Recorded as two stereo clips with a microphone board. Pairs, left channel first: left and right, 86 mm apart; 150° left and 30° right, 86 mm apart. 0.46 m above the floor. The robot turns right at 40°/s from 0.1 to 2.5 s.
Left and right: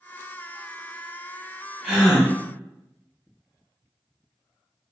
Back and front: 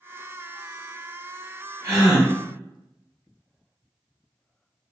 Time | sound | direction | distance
1.8 | a gasp | 5° right | 1.3 m